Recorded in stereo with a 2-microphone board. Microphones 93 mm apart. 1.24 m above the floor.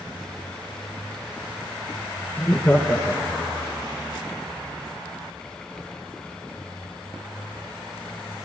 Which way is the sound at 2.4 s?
15° left (ahead or behind).